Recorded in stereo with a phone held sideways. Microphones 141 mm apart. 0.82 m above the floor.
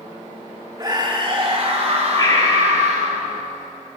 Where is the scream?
30° right (ahead or behind), 2.5 m; by 3.2 s 60° right (ahead or behind), 4.5 m.